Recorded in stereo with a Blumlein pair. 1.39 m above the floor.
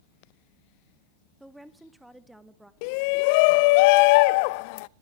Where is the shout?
45° left, 0.5 m.